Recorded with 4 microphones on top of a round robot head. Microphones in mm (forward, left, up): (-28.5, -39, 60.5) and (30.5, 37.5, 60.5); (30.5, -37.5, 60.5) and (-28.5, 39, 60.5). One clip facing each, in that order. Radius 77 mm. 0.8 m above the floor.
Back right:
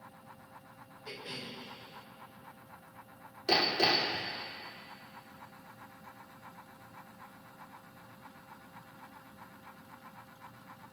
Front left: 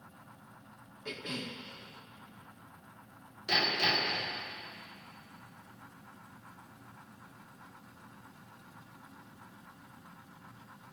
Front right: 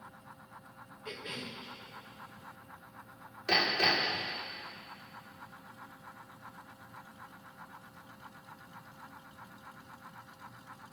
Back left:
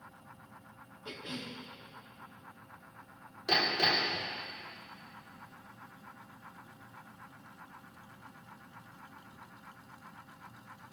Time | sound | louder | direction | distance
1.1 | a cough | front left 4 dB, even | 70° left | 1.8 m
3.5 | hammering | back right 3 dB, front right 1 dB | 160° right | 2.5 m